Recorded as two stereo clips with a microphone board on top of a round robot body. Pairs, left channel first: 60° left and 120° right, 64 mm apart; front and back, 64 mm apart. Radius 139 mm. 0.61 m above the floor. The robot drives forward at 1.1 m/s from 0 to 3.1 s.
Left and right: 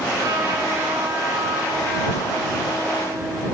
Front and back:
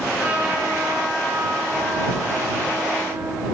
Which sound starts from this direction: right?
A trumpet, at 0.2 s.